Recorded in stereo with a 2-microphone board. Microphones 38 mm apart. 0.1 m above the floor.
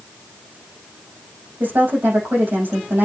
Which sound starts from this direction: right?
A woman speaking, at 1.6 s.